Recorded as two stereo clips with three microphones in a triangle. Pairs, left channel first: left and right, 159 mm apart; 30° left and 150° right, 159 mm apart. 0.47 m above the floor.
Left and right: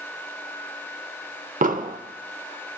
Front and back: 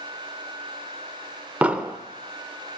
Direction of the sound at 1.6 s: 70° right.